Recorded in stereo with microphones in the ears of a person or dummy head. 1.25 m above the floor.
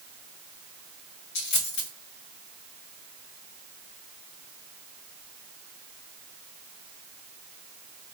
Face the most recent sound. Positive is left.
turn(degrees=65)  # may be behind; listen again after turning